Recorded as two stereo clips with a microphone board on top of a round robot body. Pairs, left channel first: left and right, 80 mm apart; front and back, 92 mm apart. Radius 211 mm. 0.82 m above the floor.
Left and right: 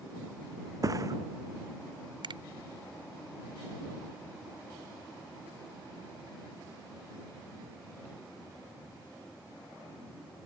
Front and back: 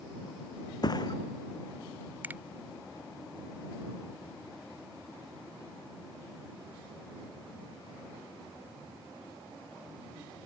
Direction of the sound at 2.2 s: 110° right.